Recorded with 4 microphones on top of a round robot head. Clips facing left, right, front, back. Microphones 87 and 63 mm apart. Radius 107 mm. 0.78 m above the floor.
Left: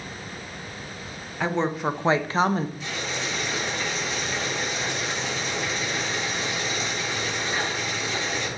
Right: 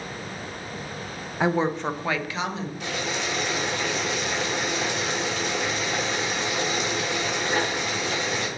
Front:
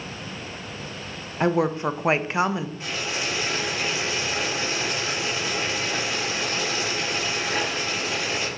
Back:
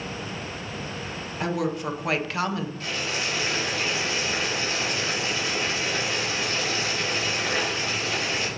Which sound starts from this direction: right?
Boiling, at 2.8 s.